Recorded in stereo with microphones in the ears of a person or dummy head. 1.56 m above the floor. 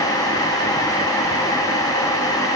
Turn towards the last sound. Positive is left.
No sound to turn to.